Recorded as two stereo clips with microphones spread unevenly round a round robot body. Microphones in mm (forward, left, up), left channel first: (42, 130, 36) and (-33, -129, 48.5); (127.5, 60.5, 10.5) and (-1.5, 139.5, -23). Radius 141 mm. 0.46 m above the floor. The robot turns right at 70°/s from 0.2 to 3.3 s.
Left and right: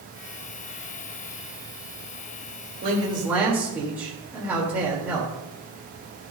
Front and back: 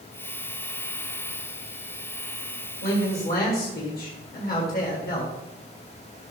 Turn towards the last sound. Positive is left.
turn(degrees=-20)